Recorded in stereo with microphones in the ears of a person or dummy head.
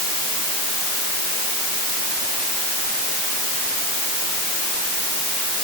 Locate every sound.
Only background noise.